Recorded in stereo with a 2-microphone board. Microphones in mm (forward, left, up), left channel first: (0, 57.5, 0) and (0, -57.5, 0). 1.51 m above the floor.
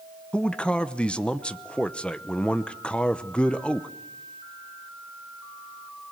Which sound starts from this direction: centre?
A man speaking, at 0.3 s.